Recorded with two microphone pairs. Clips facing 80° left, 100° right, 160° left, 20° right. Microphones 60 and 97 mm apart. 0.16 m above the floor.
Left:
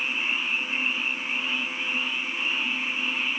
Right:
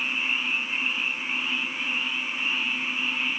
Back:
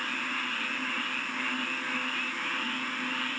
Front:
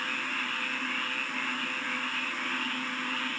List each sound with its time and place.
Only background noise.